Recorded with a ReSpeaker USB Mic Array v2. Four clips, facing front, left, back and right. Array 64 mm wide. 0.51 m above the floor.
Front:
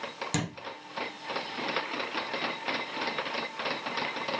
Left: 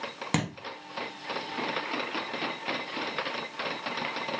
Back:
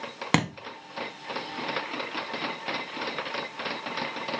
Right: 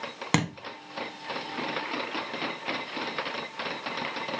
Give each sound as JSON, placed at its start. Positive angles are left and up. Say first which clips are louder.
{"t": 0.3, "sound": "a thud", "louder": "right 3 dB, back 9 dB", "azimuth_deg": -155, "distance_m": 0.6}